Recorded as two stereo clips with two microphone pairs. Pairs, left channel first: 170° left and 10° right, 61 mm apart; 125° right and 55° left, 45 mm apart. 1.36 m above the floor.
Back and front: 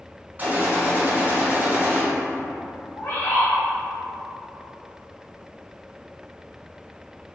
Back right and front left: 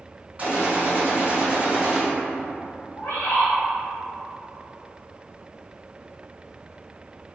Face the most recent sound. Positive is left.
turn(degrees=-150)